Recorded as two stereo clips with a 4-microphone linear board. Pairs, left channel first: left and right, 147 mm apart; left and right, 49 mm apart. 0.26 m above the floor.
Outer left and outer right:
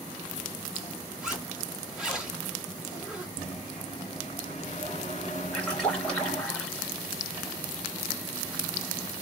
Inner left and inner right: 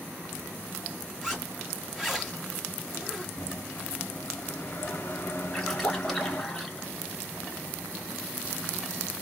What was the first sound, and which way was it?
A zipper, 5° right (ahead or behind).